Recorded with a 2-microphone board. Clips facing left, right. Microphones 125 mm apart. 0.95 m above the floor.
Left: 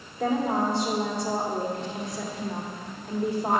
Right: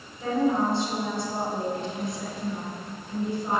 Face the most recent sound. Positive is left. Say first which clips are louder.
# right 1 dB
turn(degrees=70)  # may be behind; listen again after turning